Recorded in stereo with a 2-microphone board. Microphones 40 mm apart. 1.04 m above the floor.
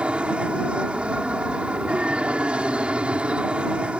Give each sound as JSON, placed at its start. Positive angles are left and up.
{"t": 0.0, "sound": "an aircraft", "side_deg": -30}